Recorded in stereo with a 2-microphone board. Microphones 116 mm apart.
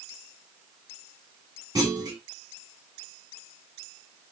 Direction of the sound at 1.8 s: 35° right (ahead or behind).